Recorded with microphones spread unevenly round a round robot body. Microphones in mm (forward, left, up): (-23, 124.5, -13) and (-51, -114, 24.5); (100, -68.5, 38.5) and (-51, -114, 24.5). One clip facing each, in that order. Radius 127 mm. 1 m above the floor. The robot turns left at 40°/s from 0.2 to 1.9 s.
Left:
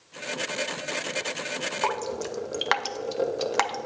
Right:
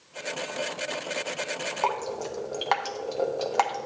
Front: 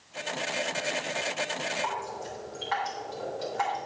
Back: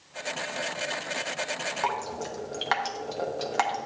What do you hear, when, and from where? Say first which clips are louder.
1.8 s dripping: left 1 dB, back 3 dB; 155° left, 0.5 m; by 3.9 s 150° left, 0.5 m